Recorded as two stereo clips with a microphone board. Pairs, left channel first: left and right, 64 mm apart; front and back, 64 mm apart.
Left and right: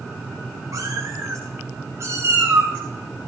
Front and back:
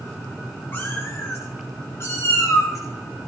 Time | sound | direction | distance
0.7 | a cat meowing | 60° right | 6.5 m